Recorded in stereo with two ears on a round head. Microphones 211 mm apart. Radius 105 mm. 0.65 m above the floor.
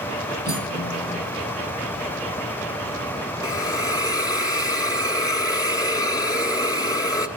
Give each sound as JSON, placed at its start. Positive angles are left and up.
{"t": 0.5, "sound": "cutlery clinking", "side_deg": -15, "distance_m": 9.0}
{"t": 3.4, "sound": "a hiss", "side_deg": 15, "distance_m": 1.2}